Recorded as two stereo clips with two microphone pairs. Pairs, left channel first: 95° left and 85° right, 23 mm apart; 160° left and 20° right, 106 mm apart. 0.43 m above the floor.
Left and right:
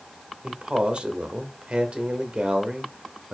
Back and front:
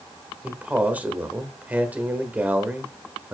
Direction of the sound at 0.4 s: 90° right.